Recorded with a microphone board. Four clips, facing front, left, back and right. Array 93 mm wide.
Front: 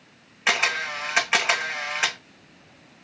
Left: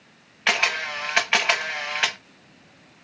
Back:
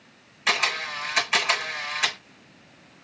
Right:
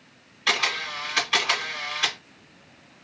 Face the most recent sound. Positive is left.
turn(degrees=60)